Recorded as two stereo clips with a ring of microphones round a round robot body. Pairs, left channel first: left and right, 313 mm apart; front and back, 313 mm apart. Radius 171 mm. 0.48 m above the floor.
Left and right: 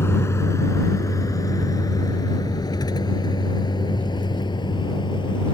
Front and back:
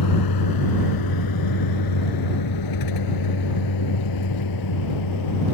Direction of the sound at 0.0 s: 10° left.